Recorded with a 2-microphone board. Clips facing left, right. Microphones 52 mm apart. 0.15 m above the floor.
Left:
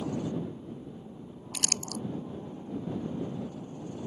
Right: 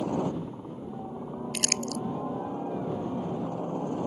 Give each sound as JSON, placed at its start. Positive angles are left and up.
{"t": 0.0, "sound": "a helicopter", "side_deg": -60}
{"t": 1.5, "sound": "crumpling", "side_deg": -70}